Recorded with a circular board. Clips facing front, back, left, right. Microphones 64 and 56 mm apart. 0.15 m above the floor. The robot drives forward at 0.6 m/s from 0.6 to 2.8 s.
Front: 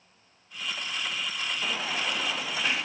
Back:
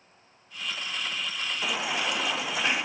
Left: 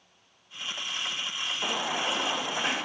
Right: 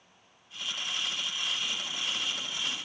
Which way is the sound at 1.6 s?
105° left.